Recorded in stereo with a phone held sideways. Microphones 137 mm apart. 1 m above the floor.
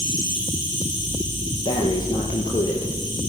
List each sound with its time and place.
0.0 s an insect: 30° left (ahead or behind), 8 m
1.6 s breathing: 30° left (ahead or behind), 5 m